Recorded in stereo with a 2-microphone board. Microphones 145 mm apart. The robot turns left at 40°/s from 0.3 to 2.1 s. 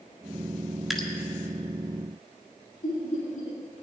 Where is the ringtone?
No ringtone in this recording.